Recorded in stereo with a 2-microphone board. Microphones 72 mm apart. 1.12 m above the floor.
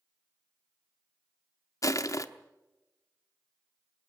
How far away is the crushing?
About 0.9 m.